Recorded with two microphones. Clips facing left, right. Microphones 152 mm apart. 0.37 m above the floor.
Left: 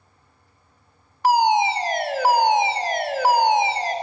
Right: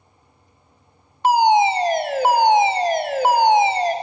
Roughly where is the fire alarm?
Right.